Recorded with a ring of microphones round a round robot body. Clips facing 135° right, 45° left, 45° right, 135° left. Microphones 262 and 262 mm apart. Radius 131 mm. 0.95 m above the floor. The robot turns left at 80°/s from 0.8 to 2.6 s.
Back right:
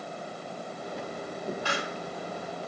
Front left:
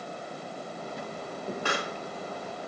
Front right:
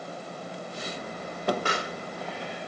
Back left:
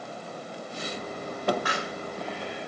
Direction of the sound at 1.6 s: 15° left.